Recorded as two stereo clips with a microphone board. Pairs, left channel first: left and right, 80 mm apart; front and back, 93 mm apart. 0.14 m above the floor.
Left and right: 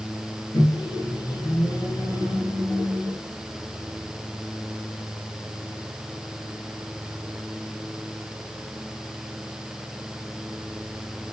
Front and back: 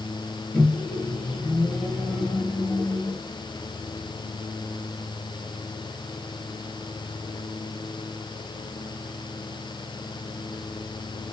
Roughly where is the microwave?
Left.